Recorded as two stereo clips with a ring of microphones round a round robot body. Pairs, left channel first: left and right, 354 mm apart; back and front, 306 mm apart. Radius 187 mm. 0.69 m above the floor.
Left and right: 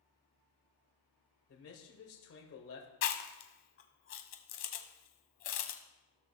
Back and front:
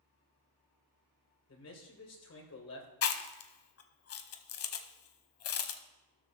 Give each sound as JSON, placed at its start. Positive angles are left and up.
{"t": 1.5, "sound": "a man speaking", "azimuth_deg": 140, "distance_m": 3.0}
{"t": 3.0, "sound": "chewing", "azimuth_deg": 145, "distance_m": 0.8}